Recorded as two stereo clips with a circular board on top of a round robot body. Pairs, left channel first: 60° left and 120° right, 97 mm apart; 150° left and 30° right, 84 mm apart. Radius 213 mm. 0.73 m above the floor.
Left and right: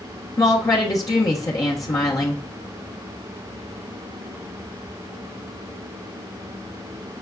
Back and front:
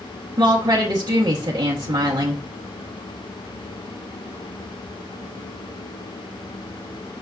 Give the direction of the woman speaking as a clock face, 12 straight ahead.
12 o'clock.